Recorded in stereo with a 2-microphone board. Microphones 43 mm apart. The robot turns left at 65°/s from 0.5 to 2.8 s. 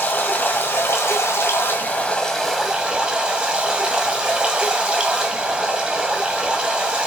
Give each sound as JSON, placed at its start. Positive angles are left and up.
{"t": 0.0, "sound": "running water", "azimuth_deg": 125, "distance_m": 2.5}